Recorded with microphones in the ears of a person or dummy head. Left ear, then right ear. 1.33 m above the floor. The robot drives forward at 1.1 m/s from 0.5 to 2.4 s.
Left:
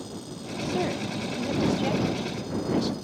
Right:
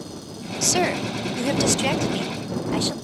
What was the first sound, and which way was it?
A woman speaking, 60° right (ahead or behind).